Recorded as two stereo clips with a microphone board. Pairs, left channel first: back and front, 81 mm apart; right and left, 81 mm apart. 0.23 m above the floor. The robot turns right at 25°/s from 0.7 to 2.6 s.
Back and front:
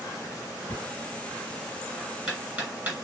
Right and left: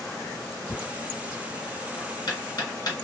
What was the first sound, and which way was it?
Knocking, 115° right.